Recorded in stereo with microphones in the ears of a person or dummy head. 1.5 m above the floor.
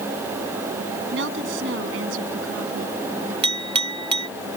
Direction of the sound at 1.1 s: 65° right (ahead or behind).